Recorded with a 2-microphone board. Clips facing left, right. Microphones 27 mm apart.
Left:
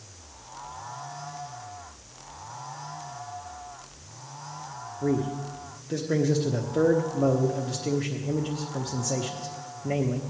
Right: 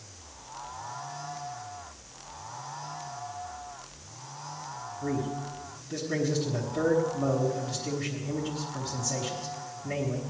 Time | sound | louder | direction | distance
5.0 | a man speaking | left 5 dB | 55° left (ahead or behind) | 1.1 m